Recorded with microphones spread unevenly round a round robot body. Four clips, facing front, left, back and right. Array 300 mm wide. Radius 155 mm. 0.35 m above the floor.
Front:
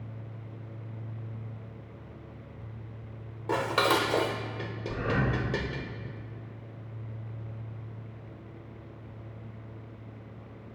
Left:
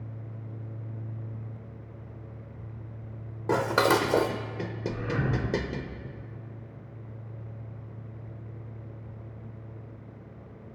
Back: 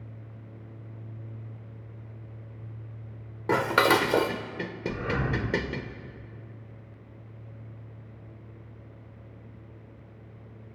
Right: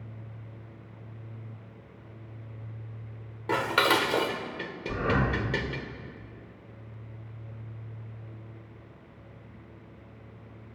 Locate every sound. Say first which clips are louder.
3.5 s dishes clattering: left 2 dB, back 4 dB; 145° left, 0.8 m
4.9 s breathing: right 4 dB, front 1 dB; 90° right, 4 m